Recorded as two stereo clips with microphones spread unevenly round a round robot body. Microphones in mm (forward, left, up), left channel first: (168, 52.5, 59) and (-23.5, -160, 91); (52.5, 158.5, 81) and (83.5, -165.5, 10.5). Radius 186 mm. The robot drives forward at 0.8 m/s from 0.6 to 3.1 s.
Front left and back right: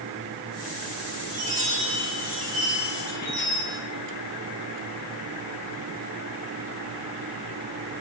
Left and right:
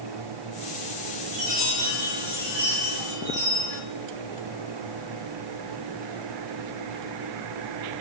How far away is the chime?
About 3.5 m.